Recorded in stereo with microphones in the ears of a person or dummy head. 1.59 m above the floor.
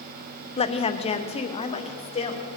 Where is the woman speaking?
30° left (ahead or behind), 0.7 m.